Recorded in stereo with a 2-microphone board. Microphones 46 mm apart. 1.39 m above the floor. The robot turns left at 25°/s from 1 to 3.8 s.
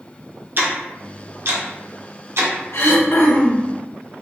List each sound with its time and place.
0.6 s ticking: 50° right (ahead or behind), 1.1 m; by 2.5 s 70° right (ahead or behind), 1.1 m
2.7 s throat clearing: 60° left (ahead or behind), 0.9 m; by 3.7 s 45° left (ahead or behind), 0.9 m